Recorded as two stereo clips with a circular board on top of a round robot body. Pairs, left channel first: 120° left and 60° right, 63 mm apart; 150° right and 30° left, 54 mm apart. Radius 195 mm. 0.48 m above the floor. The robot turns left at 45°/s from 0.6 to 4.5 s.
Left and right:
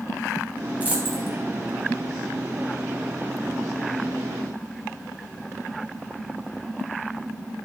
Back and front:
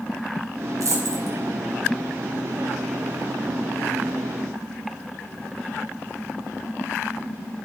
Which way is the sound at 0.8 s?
5° left.